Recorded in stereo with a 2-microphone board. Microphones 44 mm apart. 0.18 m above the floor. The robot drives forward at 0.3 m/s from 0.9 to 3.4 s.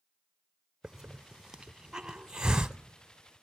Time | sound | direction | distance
0.8 | a hiss | 10° right (ahead or behind) | 0.7 m